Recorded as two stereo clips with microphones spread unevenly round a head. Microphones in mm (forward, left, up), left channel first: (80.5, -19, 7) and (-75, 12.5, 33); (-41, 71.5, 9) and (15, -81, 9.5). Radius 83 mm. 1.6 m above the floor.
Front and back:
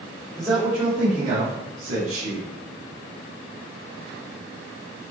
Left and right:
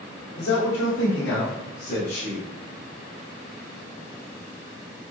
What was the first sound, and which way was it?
A man speaking, 80° left.